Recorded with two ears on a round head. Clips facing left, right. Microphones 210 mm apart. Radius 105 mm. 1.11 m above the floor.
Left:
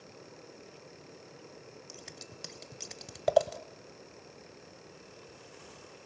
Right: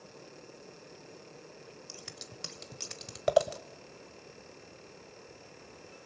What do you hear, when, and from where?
1.9 s scissors: 5° right (ahead or behind), 1.3 m